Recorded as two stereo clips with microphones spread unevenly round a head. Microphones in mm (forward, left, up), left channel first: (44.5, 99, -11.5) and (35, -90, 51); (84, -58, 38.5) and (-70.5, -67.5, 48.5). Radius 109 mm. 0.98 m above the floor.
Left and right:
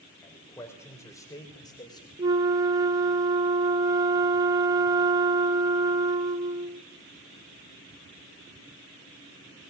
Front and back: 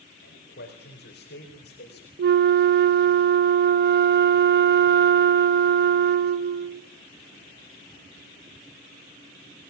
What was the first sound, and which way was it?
A man speaking, 10° left.